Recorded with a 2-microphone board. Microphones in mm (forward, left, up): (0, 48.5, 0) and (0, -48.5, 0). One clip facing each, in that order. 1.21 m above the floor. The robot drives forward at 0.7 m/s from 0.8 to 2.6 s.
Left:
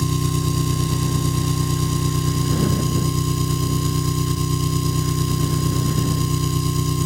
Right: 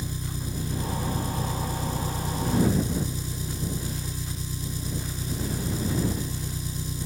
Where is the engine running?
85° left; by 7.0 s 75° left (ahead or behind).